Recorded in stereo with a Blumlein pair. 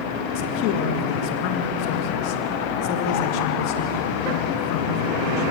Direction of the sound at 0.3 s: 45° left.